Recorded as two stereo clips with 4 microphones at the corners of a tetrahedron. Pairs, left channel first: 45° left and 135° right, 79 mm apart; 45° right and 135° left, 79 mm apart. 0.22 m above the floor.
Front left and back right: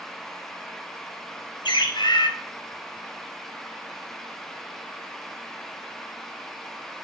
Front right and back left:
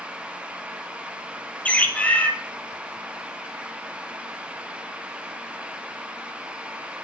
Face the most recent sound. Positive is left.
turn(degrees=25)